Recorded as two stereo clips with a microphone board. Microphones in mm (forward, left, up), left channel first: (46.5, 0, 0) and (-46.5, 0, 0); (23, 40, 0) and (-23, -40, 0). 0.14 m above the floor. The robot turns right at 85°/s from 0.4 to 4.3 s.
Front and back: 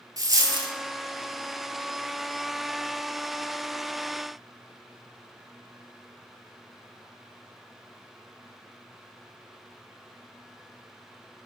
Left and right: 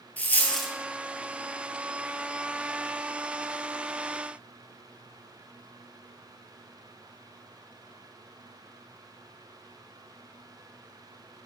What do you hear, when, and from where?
0.2 s a dropped coin: 135° left, 0.5 m; by 0.7 s 160° left, 0.5 m